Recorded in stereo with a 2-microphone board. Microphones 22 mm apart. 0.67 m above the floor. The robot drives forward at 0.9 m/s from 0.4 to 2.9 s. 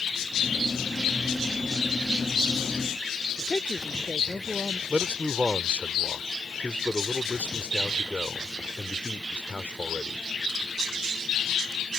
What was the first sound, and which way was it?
A woman speaking, 45° left (ahead or behind).